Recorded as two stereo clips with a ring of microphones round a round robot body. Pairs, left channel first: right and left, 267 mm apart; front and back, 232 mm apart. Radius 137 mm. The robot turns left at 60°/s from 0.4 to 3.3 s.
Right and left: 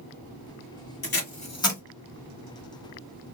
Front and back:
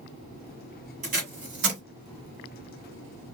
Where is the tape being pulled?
125° right, 1.7 m; by 1.8 s 170° right, 1.7 m.